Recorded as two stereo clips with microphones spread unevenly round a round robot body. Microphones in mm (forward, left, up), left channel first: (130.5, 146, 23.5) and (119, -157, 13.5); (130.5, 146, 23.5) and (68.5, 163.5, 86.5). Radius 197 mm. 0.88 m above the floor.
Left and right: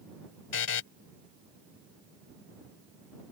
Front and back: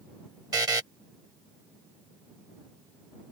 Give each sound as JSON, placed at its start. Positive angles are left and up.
{"t": 0.5, "sound": "a buzzer", "azimuth_deg": 145}